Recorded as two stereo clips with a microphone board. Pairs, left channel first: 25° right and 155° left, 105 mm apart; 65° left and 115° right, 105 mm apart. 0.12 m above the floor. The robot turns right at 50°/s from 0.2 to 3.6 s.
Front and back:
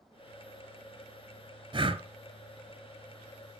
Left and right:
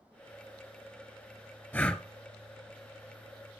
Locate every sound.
1.7 s breathing: 135° left, 0.7 m; by 2.0 s 150° left, 0.7 m